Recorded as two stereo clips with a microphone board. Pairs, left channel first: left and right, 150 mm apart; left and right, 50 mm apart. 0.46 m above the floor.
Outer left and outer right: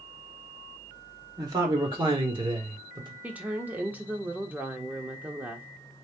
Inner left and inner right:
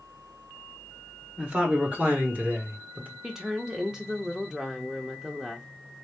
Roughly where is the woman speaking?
Centre.